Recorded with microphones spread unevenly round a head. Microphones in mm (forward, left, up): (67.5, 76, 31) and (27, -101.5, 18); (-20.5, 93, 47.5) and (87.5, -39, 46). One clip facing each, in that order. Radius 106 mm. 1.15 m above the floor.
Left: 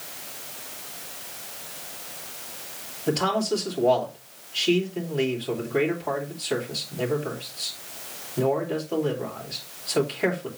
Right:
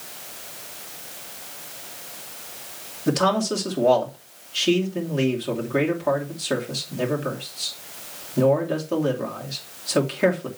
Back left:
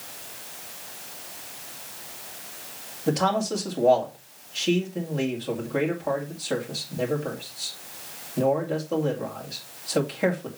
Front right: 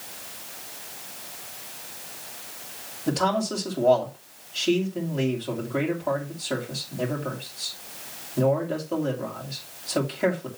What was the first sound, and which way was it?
A man speaking, 145° right.